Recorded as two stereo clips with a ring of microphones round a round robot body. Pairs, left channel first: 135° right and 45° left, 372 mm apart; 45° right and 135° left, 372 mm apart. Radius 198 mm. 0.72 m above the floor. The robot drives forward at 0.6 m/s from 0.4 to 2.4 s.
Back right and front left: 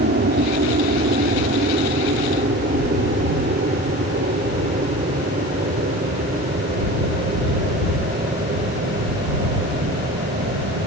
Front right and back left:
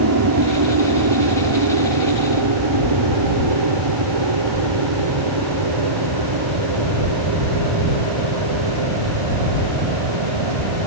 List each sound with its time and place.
0.0 s an aircraft: 105° left; by 10.9 s 115° left